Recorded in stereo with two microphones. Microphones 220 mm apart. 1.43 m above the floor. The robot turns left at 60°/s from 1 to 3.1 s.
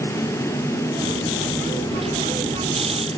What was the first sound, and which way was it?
Only background noise.